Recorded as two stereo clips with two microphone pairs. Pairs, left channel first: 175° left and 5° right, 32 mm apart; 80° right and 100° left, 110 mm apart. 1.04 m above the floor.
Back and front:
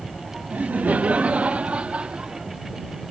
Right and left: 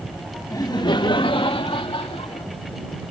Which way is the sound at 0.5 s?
25° right.